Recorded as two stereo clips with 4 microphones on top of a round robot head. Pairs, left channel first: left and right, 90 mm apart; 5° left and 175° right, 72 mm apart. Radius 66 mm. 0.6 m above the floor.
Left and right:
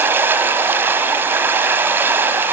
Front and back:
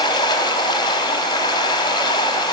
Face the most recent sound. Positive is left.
turn(degrees=-25)